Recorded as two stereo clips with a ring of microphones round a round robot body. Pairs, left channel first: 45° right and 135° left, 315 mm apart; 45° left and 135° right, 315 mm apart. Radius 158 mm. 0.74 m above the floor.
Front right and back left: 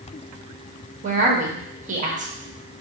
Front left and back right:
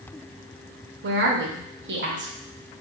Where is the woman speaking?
170° right, 0.9 m.